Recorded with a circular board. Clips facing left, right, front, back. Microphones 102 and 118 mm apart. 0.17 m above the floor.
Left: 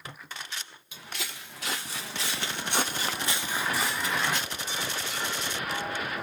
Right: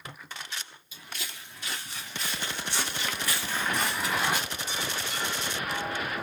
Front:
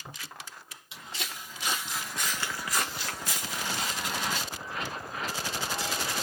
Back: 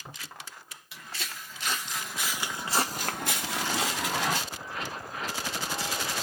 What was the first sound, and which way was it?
Footsteps, 65° left.